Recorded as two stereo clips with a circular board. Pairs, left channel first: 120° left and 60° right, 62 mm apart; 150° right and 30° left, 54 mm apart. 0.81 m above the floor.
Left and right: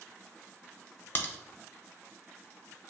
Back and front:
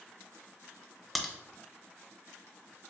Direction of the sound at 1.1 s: 125° left.